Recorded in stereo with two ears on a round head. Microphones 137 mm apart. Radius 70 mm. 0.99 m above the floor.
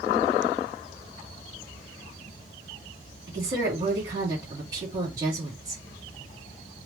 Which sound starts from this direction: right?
A woman speaking, at 3.3 s.